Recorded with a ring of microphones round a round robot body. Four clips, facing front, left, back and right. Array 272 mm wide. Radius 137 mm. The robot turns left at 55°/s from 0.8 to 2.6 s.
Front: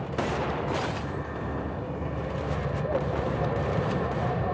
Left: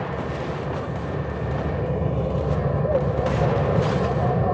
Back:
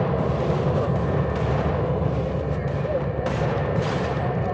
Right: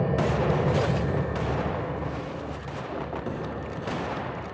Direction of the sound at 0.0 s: 150° right.